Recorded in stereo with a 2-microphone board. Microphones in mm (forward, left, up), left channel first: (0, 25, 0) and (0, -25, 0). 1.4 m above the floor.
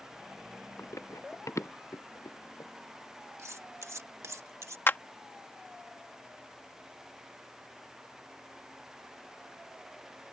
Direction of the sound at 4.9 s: 45° left (ahead or behind).